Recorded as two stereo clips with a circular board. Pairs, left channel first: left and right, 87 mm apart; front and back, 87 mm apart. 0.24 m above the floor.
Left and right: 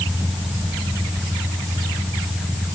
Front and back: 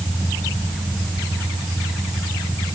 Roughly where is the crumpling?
I don't hear crumpling.